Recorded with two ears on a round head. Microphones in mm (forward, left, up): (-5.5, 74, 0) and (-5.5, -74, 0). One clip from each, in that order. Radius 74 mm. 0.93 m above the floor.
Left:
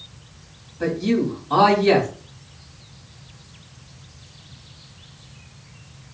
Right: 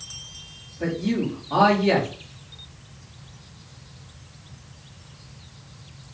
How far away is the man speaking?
About 2 m.